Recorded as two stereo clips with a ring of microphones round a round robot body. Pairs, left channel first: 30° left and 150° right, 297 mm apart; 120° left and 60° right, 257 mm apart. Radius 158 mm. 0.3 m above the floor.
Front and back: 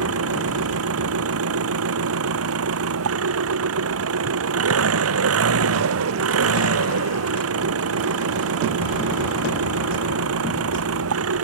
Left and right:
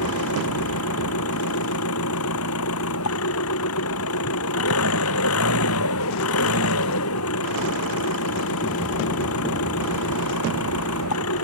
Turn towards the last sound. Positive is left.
turn(degrees=165)